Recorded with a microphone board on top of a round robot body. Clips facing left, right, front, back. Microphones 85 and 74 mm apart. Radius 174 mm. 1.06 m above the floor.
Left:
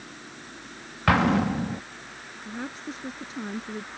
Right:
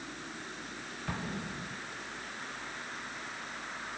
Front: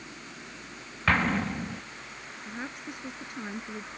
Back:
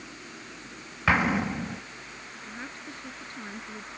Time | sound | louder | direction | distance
1.1 | an explosion | left 18 dB, back 2 dB | 100° left | ?
2.5 | a woman speaking | left 7 dB, front 3 dB | 75° left | ?